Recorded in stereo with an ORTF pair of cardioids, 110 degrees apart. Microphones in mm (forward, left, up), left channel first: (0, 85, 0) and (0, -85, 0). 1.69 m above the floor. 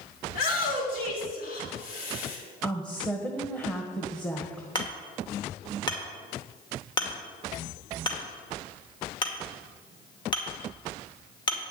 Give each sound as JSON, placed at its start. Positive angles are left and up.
{"t": 0.3, "sound": "a shout", "azimuth_deg": 65, "distance_m": 5.5}
{"t": 2.6, "sound": "a woman speaking", "azimuth_deg": 5, "distance_m": 1.5}
{"t": 4.8, "sound": "hammering", "azimuth_deg": 30, "distance_m": 2.0}